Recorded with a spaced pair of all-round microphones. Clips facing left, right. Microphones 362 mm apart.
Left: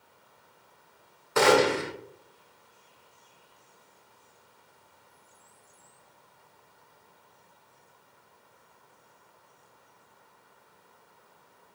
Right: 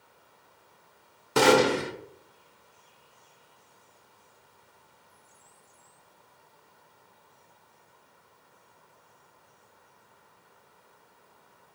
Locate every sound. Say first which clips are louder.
1.4 s a gunshot: right 1 dB; 45° right (ahead or behind), 0.8 m